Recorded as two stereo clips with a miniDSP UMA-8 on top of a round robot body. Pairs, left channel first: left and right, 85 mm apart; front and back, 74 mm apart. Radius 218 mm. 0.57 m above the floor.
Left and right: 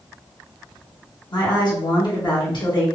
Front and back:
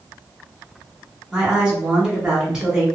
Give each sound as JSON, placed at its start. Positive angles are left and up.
{"t": 1.3, "sound": "a woman speaking", "azimuth_deg": 105, "distance_m": 1.5}